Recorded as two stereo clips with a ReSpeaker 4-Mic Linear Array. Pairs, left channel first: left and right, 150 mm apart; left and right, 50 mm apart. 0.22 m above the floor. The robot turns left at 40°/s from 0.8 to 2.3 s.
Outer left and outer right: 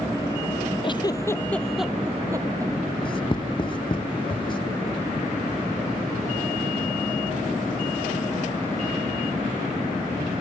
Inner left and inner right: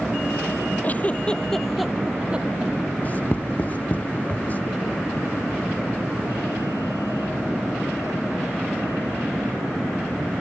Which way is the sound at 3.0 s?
35° left (ahead or behind).